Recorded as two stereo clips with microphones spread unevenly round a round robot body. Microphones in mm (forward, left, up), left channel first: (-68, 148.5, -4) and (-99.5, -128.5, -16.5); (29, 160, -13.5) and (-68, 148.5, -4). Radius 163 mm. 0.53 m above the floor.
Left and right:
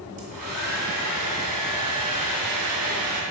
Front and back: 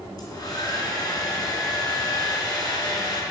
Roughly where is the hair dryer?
Ahead right.